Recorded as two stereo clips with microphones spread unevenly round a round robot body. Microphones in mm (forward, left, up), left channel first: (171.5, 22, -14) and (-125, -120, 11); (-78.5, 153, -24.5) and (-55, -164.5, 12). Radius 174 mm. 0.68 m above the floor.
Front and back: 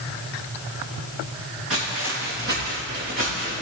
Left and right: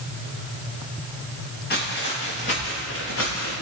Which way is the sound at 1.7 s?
155° left.